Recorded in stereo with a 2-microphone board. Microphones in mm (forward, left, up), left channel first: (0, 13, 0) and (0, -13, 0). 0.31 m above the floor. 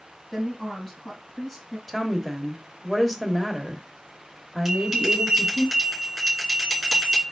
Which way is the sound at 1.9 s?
Centre (ahead or behind).